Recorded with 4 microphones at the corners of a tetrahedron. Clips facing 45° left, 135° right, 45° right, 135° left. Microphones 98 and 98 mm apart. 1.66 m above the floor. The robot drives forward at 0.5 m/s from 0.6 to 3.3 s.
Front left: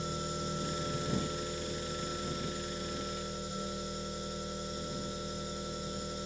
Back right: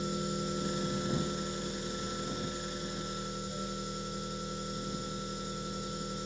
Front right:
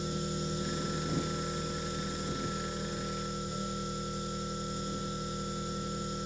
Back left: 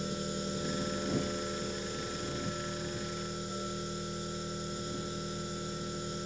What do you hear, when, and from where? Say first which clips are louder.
0.0 s an engine running: back right 3 dB, front right 1 dB; 150° left, 1.1 m; by 6.3 s 165° left, 2 m